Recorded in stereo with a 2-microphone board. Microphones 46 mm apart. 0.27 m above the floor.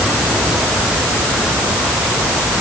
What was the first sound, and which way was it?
Only background noise.